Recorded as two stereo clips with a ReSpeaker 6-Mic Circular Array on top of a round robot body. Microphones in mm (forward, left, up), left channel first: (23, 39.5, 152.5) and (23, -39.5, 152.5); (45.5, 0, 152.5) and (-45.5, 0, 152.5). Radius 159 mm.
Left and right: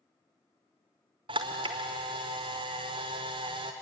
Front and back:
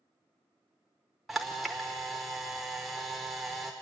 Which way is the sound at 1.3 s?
90° right.